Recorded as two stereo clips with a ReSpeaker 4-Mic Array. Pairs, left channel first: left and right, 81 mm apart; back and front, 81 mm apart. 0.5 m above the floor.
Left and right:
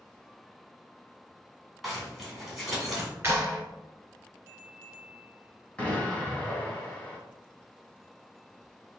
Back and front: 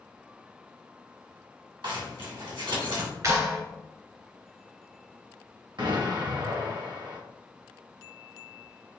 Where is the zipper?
Straight ahead, 2 m.